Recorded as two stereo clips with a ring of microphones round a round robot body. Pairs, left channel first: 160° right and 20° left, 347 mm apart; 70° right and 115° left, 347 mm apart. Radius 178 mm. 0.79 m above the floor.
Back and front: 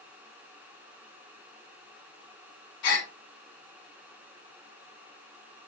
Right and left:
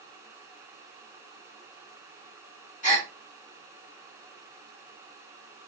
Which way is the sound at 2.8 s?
135° right.